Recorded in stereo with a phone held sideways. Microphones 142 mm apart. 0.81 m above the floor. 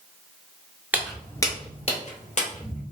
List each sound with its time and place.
0.9 s footsteps: 10° right (ahead or behind), 0.8 m; by 2.8 s 65° left (ahead or behind), 1.8 m